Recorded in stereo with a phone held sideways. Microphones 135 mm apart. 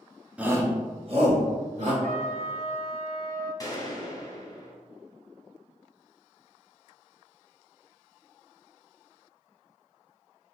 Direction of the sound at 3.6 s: 25° left (ahead or behind).